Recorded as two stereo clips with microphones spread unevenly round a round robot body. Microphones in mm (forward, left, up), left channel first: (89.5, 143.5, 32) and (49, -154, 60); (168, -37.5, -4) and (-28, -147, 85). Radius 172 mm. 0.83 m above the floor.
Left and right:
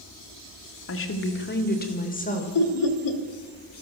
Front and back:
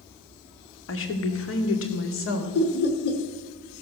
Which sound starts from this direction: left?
Laughter, at 2.5 s.